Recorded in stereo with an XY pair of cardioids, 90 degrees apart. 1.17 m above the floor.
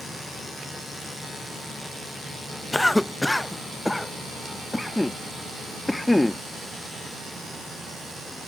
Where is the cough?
10° left.